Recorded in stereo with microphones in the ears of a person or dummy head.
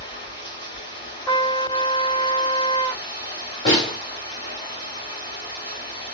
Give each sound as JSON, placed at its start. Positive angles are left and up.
{"t": 0.0, "sound": "running water", "side_deg": 20, "distance_m": 2.0}
{"t": 1.3, "sound": "a trumpet", "side_deg": 25, "distance_m": 1.7}
{"t": 3.6, "sound": "a snare drum", "side_deg": 10, "distance_m": 1.2}